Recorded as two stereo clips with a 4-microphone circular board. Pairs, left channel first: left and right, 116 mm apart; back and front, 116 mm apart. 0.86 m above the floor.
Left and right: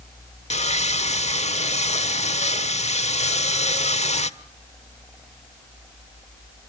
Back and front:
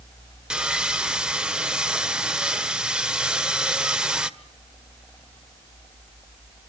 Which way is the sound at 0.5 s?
85° left.